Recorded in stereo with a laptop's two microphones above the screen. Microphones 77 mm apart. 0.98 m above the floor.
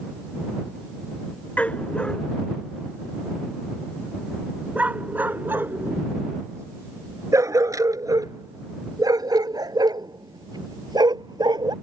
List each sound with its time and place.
1.6 s a dog barking: 20° left (ahead or behind); by 11.7 s 65° right (ahead or behind)